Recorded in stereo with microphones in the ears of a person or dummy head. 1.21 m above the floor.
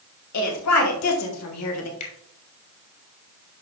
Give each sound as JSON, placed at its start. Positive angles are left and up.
{"t": 0.3, "sound": "a woman speaking", "side_deg": 75, "distance_m": 2.5}
{"t": 2.0, "sound": "a finger snap", "side_deg": 40, "distance_m": 3.5}